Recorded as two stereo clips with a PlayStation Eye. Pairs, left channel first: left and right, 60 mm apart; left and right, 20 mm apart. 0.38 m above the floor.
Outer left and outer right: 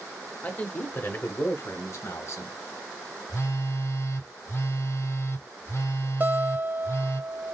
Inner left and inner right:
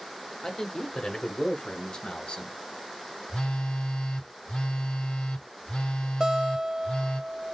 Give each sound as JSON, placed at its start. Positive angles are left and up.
{"t": 0.4, "sound": "a man speaking", "side_deg": 25, "distance_m": 0.9}
{"t": 3.3, "sound": "a phone buzzing", "side_deg": 60, "distance_m": 2.0}
{"t": 6.2, "sound": "a guitar", "side_deg": -30, "distance_m": 1.1}